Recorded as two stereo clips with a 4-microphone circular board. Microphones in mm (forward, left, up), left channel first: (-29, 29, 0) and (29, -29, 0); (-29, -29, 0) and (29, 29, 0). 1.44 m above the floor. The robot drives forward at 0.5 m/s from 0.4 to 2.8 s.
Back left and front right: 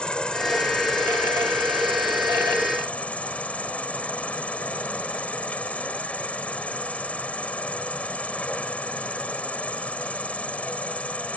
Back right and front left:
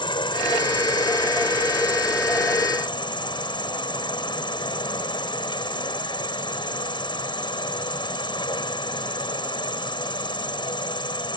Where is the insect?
145° right; by 11.4 s 150° right.